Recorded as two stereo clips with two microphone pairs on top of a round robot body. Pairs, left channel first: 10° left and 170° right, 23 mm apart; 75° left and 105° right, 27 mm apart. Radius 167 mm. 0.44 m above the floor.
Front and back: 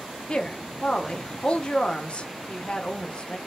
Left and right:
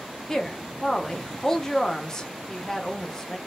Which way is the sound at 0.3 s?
10° left.